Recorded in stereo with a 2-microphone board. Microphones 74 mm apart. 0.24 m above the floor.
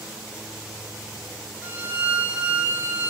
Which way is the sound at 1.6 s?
30° right (ahead or behind).